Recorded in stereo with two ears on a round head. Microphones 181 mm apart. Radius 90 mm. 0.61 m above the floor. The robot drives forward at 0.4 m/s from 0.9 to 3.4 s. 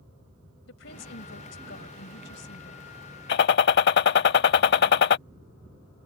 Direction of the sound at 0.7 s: 70° left (ahead or behind).